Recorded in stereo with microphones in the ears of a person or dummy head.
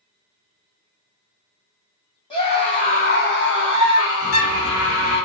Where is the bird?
75° left (ahead or behind), 1.7 m.